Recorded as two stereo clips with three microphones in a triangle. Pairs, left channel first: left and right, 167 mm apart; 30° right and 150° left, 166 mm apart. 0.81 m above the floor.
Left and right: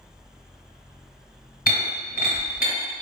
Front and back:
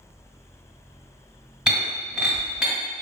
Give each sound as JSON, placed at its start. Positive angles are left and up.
{"t": 1.7, "sound": "breaking glass", "azimuth_deg": 60, "distance_m": 2.0}